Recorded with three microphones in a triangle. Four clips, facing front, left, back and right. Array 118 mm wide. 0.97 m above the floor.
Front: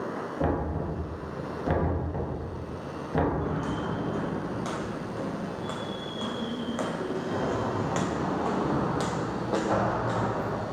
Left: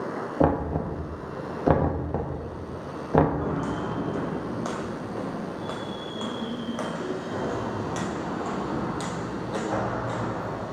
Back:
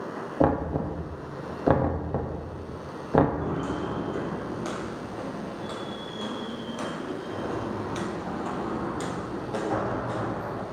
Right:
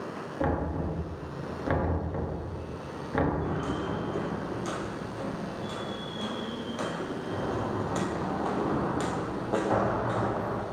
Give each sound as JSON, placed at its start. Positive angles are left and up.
{"t": 0.4, "sound": "knocking", "azimuth_deg": 130, "distance_m": 1.0}
{"t": 3.4, "sound": "footsteps", "azimuth_deg": 95, "distance_m": 2.5}